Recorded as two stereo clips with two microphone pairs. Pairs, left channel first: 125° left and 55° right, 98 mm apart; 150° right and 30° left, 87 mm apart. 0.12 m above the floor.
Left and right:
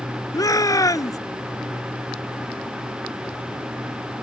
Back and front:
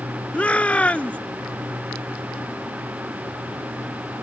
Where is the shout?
145° left.